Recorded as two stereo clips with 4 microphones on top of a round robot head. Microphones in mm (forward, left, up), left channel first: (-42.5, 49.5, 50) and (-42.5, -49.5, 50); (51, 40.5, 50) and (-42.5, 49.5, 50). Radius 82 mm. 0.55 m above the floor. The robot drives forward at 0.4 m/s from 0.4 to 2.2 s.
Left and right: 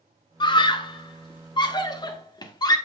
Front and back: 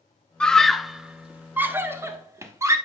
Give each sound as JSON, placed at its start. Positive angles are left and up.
{"t": 0.4, "sound": "a scream", "azimuth_deg": 75, "distance_m": 1.0}